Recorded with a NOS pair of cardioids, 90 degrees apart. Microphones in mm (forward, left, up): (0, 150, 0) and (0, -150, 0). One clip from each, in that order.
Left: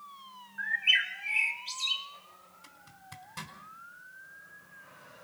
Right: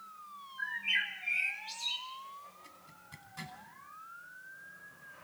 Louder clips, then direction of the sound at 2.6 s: Left 2 dB; 65° left.